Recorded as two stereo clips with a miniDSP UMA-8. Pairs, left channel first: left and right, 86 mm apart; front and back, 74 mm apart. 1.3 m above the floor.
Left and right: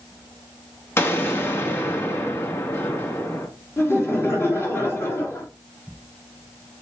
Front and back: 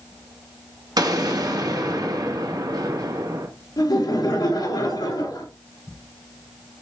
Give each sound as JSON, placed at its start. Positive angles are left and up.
{"t": 1.0, "sound": "an explosion", "azimuth_deg": 150, "distance_m": 1.7}
{"t": 3.8, "sound": "laughter", "azimuth_deg": 30, "distance_m": 3.5}